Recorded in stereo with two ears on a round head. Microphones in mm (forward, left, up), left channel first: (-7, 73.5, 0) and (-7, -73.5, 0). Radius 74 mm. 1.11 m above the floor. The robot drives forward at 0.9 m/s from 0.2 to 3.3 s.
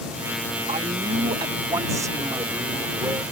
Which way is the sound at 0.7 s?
35° right (ahead or behind).